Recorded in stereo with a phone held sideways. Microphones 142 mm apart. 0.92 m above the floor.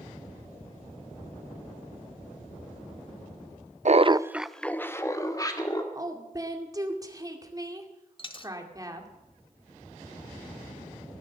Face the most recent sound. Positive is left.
turn(degrees=35)  # may be behind; listen again after turning